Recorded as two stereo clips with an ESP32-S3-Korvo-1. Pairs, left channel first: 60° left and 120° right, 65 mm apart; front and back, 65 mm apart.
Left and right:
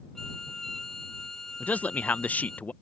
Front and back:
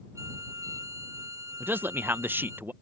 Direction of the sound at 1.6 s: 125° left.